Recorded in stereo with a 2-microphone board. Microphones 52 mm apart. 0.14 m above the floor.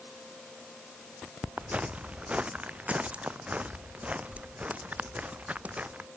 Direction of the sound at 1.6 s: 25° right (ahead or behind).